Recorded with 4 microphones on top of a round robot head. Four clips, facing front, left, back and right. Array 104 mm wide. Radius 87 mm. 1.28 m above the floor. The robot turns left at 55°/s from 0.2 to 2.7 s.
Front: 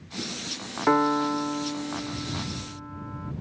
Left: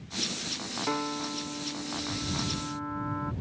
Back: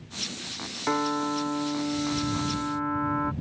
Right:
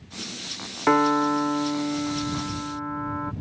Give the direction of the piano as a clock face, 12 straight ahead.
2 o'clock.